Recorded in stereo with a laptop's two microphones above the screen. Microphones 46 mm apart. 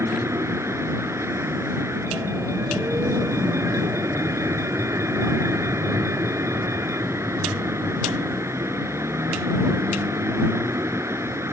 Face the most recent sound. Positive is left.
turn(degrees=-80)